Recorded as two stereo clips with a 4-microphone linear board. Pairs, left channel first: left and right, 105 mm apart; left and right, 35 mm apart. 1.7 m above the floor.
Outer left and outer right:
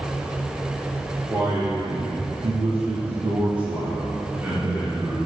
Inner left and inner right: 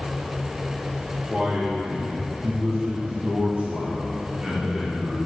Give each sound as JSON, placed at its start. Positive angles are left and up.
{"t": 1.3, "sound": "a man speaking", "side_deg": -35, "distance_m": 2.5}